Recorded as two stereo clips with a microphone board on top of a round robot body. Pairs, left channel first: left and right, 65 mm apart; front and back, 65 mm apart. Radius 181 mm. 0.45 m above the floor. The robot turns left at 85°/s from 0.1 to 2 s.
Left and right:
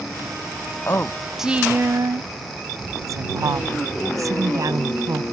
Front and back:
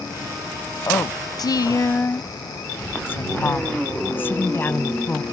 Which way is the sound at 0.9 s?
40° left.